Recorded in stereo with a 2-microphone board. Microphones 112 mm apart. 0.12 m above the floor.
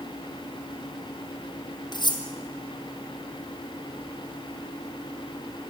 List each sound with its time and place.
1.9 s cutlery clinking: 40° left (ahead or behind), 3 m